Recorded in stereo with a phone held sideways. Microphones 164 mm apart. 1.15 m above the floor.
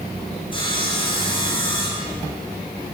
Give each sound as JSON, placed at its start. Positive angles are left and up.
{"t": 0.5, "sound": "sawing", "side_deg": 30, "distance_m": 7.5}